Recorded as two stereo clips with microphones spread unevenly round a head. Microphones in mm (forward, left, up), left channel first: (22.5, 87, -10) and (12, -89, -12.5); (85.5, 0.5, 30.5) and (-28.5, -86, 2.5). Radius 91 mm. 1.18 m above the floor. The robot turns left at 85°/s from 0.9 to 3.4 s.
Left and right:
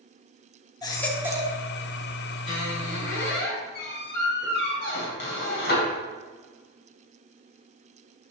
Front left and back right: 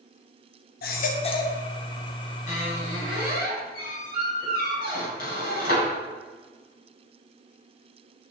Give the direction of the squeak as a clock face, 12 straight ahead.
7 o'clock.